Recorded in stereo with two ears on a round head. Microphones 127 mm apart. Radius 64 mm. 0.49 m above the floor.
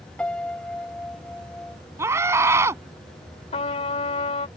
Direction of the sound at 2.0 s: 20° right (ahead or behind).